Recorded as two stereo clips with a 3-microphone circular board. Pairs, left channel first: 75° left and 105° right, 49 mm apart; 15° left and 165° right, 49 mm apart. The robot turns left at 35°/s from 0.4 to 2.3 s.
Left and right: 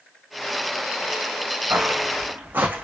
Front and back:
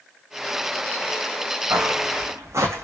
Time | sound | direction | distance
1.7 | footsteps | 140° right | 2 m